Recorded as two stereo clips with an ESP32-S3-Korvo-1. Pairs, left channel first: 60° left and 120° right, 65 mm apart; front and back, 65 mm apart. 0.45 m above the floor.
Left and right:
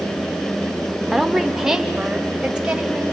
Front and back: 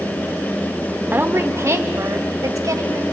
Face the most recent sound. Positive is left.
turn(degrees=165)